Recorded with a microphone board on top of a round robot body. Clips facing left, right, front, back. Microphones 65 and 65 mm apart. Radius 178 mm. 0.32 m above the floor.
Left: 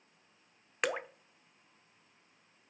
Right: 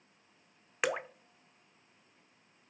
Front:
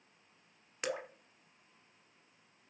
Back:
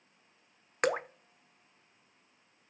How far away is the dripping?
About 0.7 m.